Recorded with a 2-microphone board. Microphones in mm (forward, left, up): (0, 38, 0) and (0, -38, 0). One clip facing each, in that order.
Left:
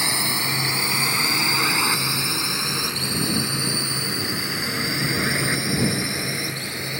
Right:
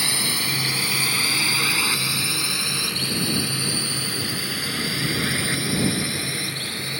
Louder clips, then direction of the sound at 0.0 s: Left 2 dB; 20° left (ahead or behind).